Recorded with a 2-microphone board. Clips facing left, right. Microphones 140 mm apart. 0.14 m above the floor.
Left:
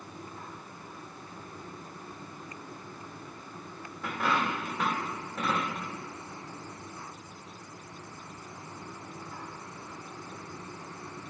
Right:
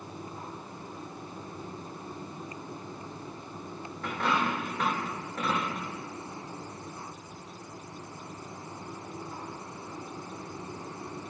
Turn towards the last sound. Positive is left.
turn(degrees=10)  # may be behind; listen again after turning